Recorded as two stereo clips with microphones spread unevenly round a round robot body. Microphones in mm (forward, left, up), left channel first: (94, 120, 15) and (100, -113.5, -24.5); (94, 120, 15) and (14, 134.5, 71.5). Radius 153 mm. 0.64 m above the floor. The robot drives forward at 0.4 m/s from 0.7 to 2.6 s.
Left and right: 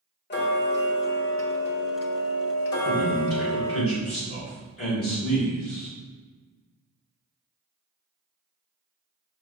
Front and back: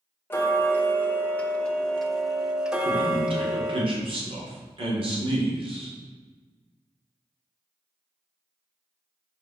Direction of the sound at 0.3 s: 45° left.